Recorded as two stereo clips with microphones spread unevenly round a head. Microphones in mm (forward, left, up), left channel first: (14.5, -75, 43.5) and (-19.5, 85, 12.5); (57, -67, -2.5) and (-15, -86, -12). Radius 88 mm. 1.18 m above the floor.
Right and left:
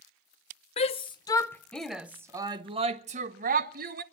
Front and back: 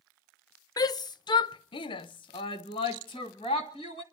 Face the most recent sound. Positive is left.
turn(degrees=75)